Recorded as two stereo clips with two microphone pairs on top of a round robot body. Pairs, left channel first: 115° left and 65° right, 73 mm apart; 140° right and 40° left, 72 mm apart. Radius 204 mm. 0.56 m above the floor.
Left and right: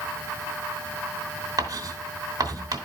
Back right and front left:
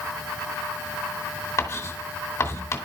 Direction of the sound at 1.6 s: 95° right.